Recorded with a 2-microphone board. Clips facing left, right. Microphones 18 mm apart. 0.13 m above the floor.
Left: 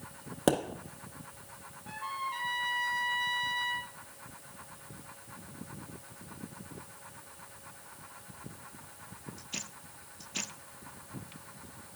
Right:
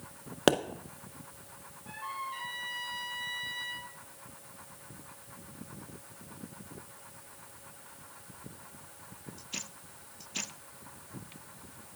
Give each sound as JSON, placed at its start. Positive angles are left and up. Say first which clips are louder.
{"t": 0.5, "sound": "a pop", "louder": "right 2 dB", "side_deg": -40, "distance_m": 0.6}
{"t": 1.9, "sound": "a trumpet", "louder": "left 2 dB", "side_deg": 5, "distance_m": 2.0}